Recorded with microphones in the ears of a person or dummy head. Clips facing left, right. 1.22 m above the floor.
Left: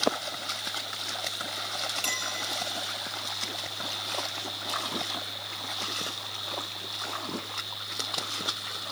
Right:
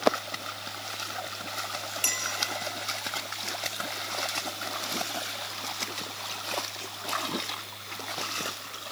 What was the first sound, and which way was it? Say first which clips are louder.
A clink: left 1 dB; 10° right (ahead or behind).